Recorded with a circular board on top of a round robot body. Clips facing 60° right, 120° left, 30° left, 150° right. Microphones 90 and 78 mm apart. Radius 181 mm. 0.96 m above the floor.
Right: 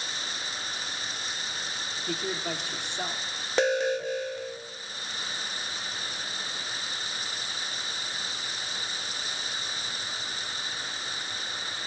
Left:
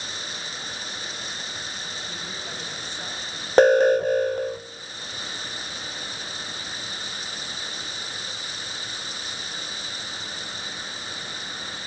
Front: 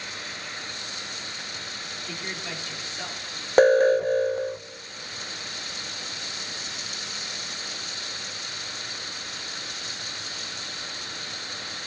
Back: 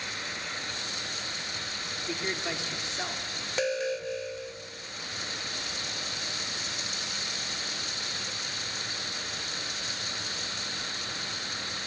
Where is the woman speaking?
80° right, 3 m.